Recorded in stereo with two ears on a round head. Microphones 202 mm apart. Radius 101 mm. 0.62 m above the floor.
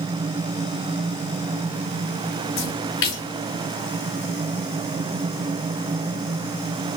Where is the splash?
55° left (ahead or behind), 2.5 m.